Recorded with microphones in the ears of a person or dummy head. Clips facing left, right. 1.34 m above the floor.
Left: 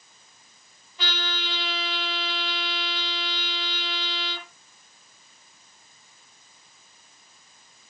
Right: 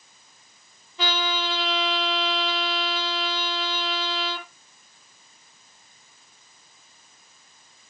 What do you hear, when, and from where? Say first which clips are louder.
1.0 s a trumpet: right 7 dB; 70° right (ahead or behind), 6 m